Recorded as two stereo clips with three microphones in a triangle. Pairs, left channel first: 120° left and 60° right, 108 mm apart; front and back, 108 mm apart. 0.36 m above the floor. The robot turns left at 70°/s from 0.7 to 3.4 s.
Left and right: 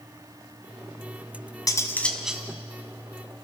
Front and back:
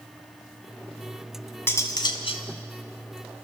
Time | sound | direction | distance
1.7 | cutlery clinking | 70° left | 1.9 m